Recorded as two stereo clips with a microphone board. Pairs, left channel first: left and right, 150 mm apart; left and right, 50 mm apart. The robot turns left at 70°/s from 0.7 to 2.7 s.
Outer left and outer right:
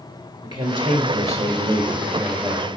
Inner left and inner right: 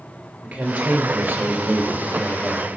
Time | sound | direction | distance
0.4 | a woman speaking | 50° right | 2.5 m